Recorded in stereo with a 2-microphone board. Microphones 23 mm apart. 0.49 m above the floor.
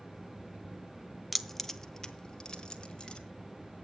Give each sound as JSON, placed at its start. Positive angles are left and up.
{"t": 1.3, "sound": "keys jangling", "side_deg": -5, "distance_m": 0.5}